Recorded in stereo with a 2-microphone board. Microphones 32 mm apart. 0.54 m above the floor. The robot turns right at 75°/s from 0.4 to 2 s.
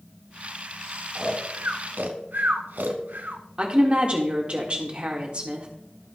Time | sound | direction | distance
1.1 | snoring | 25° right (ahead or behind) | 0.8 m
3.6 | a woman speaking | 35° right (ahead or behind) | 1.6 m